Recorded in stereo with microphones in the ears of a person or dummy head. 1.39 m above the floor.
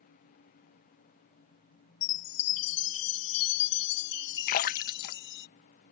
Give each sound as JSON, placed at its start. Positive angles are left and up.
{"t": 2.0, "sound": "a chime", "side_deg": 60}
{"t": 4.5, "sound": "a splash", "side_deg": 50}